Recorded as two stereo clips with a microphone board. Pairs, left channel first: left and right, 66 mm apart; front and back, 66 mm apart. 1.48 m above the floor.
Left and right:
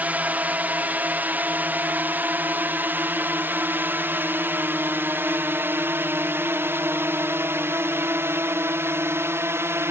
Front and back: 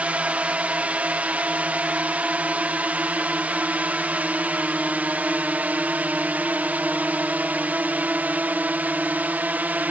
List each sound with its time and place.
0.0 s a drone: 130° right; by 9.9 s 120° right